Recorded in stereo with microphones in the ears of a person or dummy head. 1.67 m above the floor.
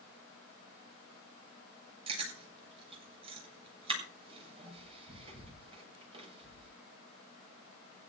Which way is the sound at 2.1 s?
25° right (ahead or behind).